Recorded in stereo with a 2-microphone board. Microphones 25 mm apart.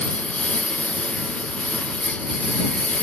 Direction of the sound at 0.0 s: 80° left.